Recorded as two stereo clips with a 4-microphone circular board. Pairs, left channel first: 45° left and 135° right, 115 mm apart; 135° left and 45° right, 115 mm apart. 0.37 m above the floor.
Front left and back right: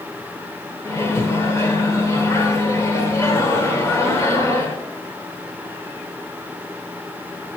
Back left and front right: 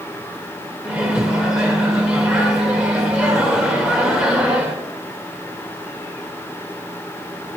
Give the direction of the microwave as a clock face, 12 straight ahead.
11 o'clock.